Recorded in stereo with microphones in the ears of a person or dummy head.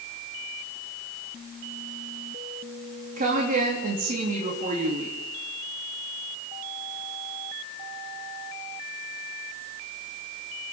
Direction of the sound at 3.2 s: 45° right (ahead or behind).